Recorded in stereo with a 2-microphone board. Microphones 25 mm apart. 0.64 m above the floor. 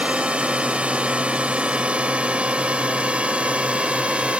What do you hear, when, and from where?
0.0 s a drone: 65° right (ahead or behind); by 4.4 s 60° right (ahead or behind)